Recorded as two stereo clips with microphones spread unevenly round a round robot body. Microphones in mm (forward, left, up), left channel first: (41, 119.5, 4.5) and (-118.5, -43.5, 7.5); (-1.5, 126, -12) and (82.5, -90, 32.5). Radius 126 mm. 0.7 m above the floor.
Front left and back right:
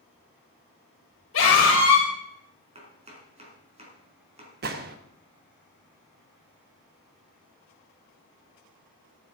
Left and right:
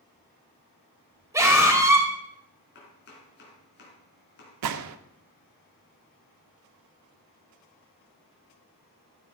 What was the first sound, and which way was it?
A scream, 10° left.